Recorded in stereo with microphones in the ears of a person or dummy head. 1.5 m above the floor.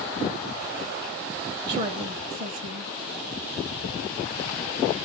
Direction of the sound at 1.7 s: 35° right (ahead or behind).